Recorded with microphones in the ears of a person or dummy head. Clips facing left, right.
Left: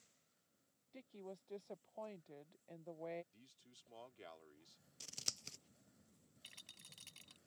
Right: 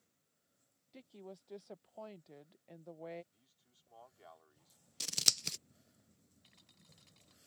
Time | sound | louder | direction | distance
0.9 | a woman speaking | right 1 dB | centre (ahead or behind) | ?
3.3 | a man speaking | left 9 dB | 40° left (ahead or behind) | ?
5.0 | scissors | right 10 dB | 70° right (ahead or behind) | ?
6.4 | a rattle | right 2 dB | 45° left (ahead or behind) | ?